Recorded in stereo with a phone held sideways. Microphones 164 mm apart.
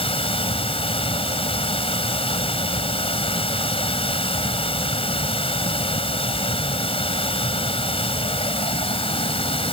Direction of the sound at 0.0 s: 35° left (ahead or behind).